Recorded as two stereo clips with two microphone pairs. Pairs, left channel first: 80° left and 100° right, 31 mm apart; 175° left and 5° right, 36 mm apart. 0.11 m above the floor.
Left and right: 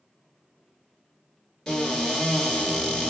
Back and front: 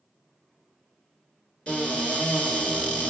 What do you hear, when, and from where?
1.7 s a cupboard door: 135° left, 1.3 m